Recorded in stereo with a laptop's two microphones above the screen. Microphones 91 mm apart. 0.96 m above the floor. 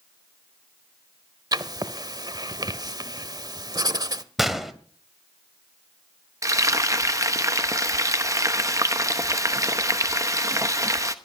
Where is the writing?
45° right (ahead or behind), 1.1 m.